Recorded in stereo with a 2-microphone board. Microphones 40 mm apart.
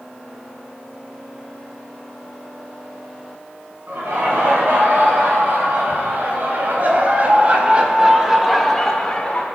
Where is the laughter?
70° right (ahead or behind), 4 m; by 9.4 s 30° left (ahead or behind), 1.2 m.